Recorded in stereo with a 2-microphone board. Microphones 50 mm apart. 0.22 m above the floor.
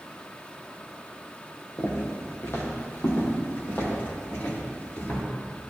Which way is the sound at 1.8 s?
60° left (ahead or behind).